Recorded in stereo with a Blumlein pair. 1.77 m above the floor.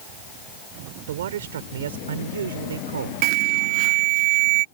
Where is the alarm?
45° right.